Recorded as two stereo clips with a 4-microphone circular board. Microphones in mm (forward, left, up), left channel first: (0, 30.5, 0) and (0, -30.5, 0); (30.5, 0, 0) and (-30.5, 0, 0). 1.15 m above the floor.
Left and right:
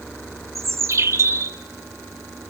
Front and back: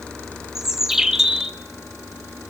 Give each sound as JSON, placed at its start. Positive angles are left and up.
{"t": 0.6, "sound": "a bird", "azimuth_deg": -100, "distance_m": 1.3}